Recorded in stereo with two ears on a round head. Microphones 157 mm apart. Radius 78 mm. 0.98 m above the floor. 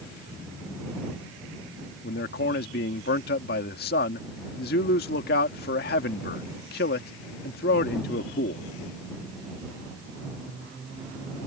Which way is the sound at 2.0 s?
60° left (ahead or behind).